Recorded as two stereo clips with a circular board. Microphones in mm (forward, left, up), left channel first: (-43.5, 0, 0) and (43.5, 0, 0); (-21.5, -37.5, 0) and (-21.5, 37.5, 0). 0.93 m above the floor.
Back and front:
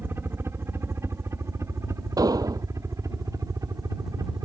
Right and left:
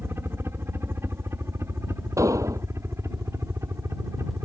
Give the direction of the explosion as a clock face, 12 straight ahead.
11 o'clock.